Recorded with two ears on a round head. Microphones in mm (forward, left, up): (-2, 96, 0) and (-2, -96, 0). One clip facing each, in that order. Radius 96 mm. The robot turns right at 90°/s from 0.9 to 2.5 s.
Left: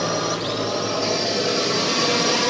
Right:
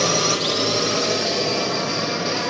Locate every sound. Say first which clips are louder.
0.0 s a drone: right 2 dB; 45° right (ahead or behind); by 2.5 s 50° left (ahead or behind)